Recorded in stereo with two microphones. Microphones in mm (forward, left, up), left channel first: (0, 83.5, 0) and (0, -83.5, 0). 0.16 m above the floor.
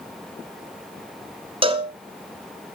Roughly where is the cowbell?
Right.